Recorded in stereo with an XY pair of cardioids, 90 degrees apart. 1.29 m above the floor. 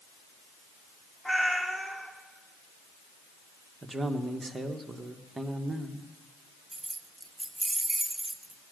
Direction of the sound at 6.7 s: 10° right.